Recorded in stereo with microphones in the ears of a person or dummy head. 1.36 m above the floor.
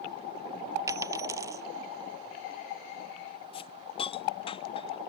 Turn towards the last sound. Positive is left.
turn(degrees=25)  # may be behind; listen again after turning